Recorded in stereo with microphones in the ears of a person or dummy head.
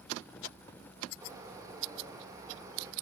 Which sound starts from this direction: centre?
A bird, at 1.2 s.